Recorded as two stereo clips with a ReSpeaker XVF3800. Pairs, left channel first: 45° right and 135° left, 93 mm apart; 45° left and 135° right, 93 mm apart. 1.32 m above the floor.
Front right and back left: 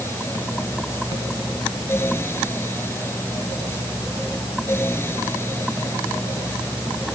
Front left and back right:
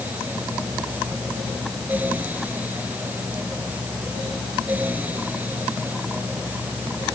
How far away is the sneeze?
I don't hear a sneeze.